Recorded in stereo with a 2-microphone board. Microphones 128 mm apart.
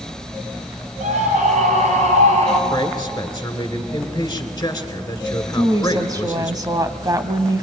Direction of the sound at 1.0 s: 75° right (ahead or behind).